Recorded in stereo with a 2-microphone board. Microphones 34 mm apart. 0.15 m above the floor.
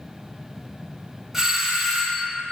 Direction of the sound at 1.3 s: 10° right (ahead or behind).